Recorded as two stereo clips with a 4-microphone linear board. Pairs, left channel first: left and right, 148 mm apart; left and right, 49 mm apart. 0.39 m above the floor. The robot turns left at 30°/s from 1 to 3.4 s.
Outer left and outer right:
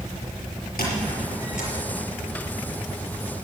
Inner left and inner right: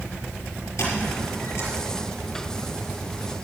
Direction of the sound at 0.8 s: 80° left.